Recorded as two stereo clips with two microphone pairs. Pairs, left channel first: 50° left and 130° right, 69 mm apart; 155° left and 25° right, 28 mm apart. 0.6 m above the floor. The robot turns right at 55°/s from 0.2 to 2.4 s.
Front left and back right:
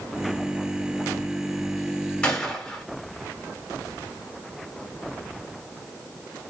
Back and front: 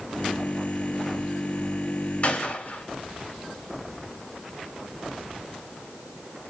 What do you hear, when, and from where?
2.2 s a gunshot: 125° left, 1.8 m; by 2.8 s 135° left, 1.8 m